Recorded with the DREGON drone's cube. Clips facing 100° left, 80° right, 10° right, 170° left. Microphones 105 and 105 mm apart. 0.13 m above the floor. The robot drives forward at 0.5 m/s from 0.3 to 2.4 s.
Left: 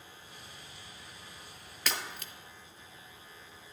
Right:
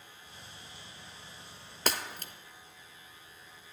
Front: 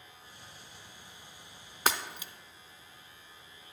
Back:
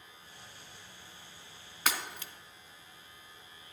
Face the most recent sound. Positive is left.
turn(degrees=-95)